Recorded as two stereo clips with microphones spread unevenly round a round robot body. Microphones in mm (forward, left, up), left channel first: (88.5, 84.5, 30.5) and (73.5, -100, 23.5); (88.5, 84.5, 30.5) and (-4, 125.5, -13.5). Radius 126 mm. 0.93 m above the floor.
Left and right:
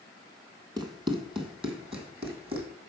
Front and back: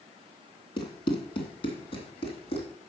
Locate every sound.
0.8 s running footsteps: 30° right, 2 m; by 2.7 s 35° right, 3.5 m